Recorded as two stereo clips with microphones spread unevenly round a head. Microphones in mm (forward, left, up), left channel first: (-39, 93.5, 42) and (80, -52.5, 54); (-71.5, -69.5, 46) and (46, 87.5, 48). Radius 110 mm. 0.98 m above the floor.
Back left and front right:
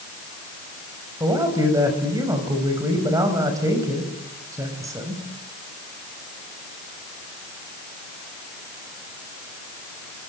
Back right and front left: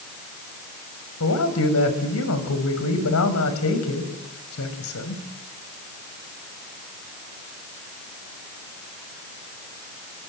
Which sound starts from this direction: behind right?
A man speaking, at 1.2 s.